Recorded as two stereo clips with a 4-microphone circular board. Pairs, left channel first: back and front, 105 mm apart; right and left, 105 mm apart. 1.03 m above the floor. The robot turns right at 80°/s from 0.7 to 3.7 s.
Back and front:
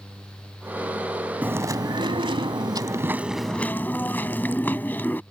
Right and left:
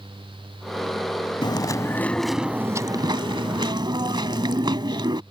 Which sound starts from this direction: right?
Chewing, at 1.4 s.